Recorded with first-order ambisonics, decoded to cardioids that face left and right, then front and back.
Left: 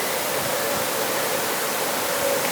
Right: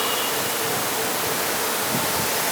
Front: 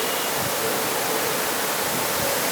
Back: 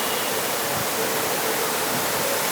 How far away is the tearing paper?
I don't hear tearing paper.